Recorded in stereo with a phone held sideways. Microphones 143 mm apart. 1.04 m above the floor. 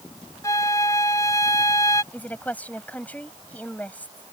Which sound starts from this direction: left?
A flute, at 0.4 s.